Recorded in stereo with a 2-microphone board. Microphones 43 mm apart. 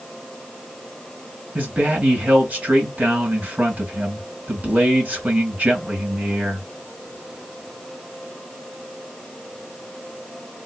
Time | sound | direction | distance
1.6 | a man speaking | 40° right (ahead or behind) | 1.8 m